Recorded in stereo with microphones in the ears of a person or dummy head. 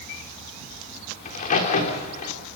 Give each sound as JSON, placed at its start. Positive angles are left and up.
{"t": 1.2, "sound": "a crack", "side_deg": 40, "distance_m": 3.5}